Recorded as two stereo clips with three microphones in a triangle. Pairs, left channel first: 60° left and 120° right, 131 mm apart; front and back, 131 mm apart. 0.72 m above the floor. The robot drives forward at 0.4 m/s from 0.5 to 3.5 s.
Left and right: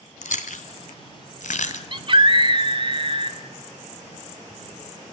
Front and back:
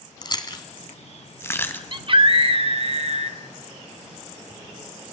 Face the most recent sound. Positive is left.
turn(degrees=-160)